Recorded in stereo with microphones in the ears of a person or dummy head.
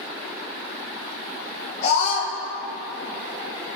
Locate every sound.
1.8 s a scream: 40° left (ahead or behind), 2 m